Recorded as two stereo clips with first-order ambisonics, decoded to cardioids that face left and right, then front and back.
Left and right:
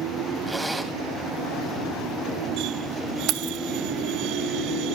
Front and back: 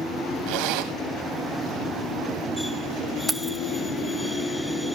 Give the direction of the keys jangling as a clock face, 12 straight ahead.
3 o'clock.